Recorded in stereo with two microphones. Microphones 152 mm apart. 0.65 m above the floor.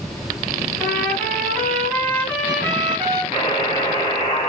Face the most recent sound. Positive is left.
turn(degrees=25)  # may be behind; listen again after turning